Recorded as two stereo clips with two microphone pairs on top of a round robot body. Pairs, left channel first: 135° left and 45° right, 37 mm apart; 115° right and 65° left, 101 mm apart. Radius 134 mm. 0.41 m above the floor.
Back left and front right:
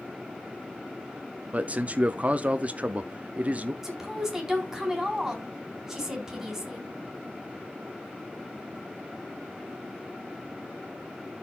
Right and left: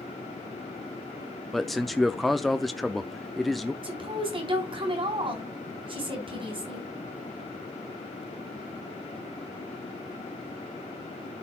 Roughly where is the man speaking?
Ahead right.